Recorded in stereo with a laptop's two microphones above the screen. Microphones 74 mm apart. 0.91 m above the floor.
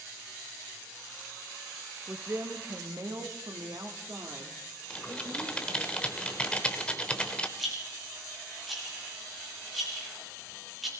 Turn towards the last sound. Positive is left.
turn(degrees=0)  # may be behind; listen again after turning